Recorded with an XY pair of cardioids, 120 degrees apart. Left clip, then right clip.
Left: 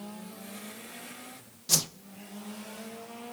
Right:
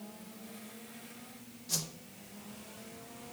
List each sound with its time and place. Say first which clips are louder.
1.7 s a whoosh: left 9 dB; 60° left, 0.5 m